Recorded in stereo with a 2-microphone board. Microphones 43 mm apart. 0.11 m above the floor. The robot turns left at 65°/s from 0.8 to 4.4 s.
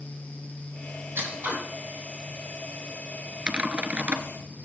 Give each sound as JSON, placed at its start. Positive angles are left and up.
{"t": 1.1, "sound": "scissors", "side_deg": -70, "distance_m": 3.5}
{"t": 3.5, "sound": "typing on a keyboard", "azimuth_deg": -40, "distance_m": 0.7}